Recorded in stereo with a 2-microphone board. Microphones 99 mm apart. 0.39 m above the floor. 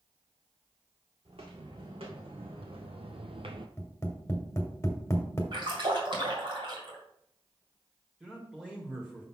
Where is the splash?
55° right (ahead or behind), 2 m.